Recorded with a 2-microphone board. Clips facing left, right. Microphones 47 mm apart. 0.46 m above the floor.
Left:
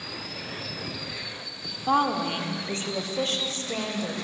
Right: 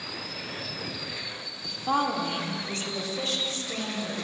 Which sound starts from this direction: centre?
A woman speaking, at 1.6 s.